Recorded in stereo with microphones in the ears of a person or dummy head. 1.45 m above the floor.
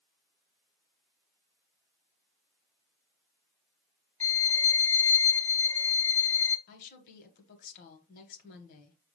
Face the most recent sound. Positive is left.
turn(degrees=50)  # may be behind; listen again after turning